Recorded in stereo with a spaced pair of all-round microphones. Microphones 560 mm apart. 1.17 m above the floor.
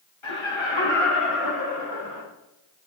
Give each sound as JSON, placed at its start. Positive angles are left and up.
{"t": 0.2, "sound": "laughter", "side_deg": 55, "distance_m": 5.0}